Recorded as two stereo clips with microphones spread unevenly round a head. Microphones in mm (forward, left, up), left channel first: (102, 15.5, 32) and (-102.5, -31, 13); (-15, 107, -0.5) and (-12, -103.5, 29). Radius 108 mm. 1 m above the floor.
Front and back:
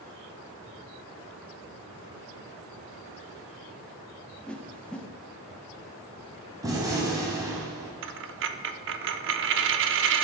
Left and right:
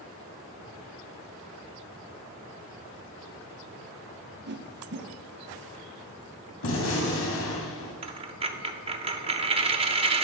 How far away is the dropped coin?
About 0.7 m.